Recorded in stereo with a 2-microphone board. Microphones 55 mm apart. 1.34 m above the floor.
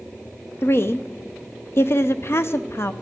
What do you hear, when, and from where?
0.6 s a woman speaking: 45° left (ahead or behind), 0.6 m